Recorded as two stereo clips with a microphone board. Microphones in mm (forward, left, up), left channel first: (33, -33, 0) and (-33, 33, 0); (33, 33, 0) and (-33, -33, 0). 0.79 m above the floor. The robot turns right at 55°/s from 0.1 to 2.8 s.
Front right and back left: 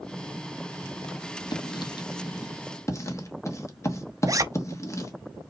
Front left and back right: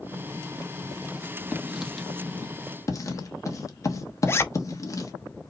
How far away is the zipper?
About 0.5 m.